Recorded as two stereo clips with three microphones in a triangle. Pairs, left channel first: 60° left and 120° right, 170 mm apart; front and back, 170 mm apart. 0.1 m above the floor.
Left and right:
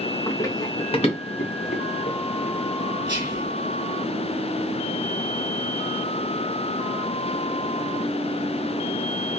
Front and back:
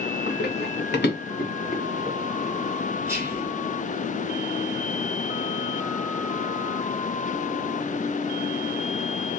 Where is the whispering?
125° right, 1.5 m.